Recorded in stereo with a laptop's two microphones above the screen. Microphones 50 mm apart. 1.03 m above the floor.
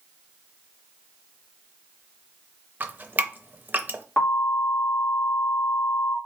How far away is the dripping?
About 0.6 m.